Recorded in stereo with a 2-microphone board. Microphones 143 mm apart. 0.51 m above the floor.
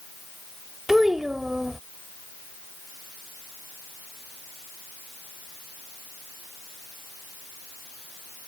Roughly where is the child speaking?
Centre.